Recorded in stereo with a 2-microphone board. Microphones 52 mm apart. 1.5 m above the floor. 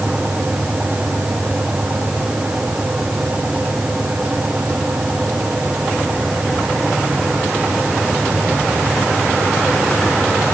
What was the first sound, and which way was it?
Only background noise.